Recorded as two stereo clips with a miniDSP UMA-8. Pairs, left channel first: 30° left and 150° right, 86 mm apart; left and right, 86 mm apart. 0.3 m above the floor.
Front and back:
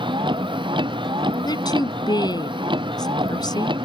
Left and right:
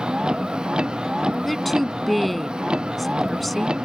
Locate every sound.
0.0 s a vehicle: 170° right
1.4 s a woman speaking: straight ahead